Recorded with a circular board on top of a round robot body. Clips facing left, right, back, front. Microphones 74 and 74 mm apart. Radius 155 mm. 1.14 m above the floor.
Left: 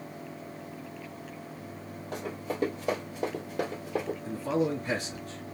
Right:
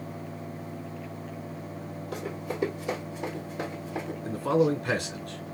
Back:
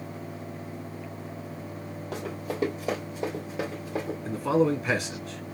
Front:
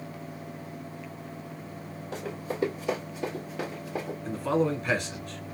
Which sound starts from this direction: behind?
Running footsteps, at 2.1 s.